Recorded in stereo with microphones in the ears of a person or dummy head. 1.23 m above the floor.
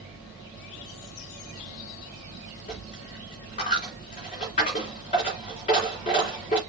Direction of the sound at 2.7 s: 30° left (ahead or behind).